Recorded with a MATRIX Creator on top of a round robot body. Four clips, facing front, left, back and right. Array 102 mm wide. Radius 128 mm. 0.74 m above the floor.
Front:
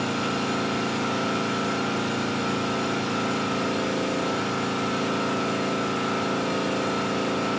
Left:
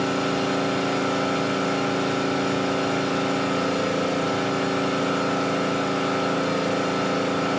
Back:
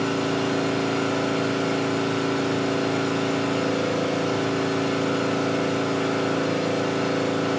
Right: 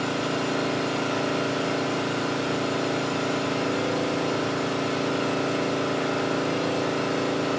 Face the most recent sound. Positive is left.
turn(degrees=100)